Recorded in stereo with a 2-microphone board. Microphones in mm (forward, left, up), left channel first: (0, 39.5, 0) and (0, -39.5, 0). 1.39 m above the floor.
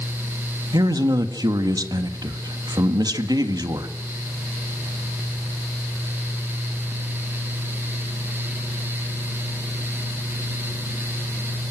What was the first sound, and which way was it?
A man speaking, 60° right (ahead or behind).